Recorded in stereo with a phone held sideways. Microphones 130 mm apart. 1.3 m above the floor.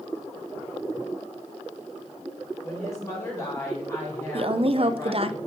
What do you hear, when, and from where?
2.6 s a woman speaking: 20° left (ahead or behind), 4 m
4.3 s a woman speaking: 45° right (ahead or behind), 0.5 m